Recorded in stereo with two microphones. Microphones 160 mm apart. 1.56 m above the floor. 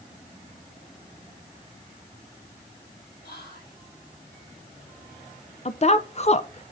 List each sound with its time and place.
3.2 s whispering: 80° left, 3.5 m
5.7 s a woman speaking: 40° left (ahead or behind), 0.6 m